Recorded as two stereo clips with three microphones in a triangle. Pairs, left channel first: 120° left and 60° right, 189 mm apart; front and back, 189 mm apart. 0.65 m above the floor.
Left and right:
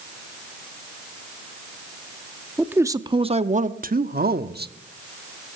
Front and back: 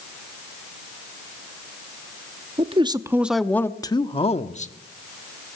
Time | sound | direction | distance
2.6 | a man speaking | 140° right | 0.9 m